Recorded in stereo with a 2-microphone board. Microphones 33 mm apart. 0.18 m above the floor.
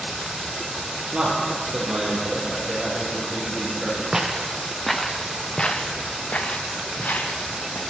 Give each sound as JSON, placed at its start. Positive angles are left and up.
{"t": 1.1, "sound": "a man speaking", "side_deg": -25, "distance_m": 4.5}
{"t": 4.1, "sound": "footsteps", "side_deg": -15, "distance_m": 1.6}